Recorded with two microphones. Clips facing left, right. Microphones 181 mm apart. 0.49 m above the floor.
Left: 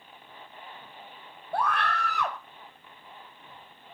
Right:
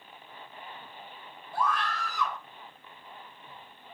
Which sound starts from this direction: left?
A scream, at 1.5 s.